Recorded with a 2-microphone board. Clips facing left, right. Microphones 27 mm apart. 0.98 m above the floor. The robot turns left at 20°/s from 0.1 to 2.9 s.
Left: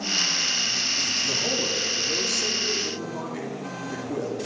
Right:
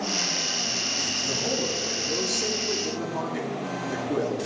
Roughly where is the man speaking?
Ahead.